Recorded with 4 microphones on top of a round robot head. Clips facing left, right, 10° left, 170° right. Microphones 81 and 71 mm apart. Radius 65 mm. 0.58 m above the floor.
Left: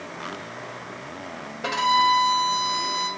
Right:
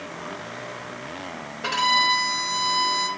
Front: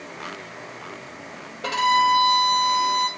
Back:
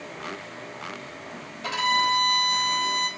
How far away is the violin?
About 2 m.